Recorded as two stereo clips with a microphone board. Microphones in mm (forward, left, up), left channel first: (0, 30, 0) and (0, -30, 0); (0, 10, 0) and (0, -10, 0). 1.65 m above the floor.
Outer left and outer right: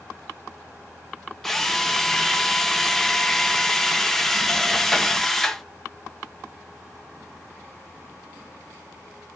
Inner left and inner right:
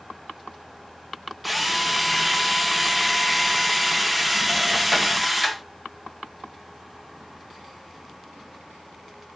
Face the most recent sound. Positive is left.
turn(degrees=5)  # may be behind; listen again after turning